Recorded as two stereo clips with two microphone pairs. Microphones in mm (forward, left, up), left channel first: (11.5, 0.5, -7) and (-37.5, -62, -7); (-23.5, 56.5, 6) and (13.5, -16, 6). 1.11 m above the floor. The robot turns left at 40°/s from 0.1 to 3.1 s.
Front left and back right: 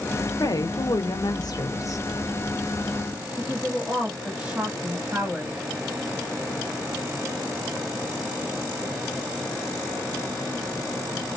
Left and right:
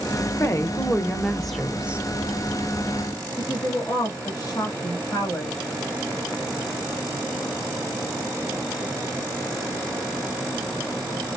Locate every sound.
0.4 s a woman speaking: 75° left, 1.2 m; by 2.0 s 10° left, 1.2 m
3.4 s a woman speaking: 165° left, 1.6 m